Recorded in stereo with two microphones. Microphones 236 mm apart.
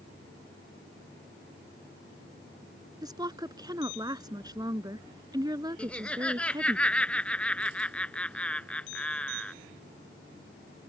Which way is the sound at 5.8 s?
5° left (ahead or behind).